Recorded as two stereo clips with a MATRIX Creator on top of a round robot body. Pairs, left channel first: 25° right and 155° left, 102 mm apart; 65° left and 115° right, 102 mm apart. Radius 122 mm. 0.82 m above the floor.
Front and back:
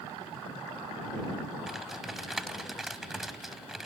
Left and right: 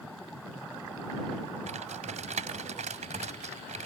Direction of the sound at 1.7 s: 115° right.